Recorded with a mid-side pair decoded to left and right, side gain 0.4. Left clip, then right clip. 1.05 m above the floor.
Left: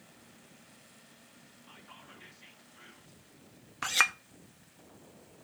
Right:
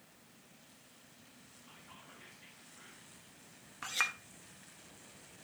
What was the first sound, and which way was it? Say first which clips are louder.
Whispering: left 4 dB; 30° left.